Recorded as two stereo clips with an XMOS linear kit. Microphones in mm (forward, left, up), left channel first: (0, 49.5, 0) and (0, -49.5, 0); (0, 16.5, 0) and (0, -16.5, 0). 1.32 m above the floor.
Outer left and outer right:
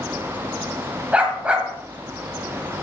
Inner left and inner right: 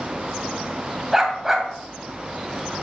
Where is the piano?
No piano in this recording.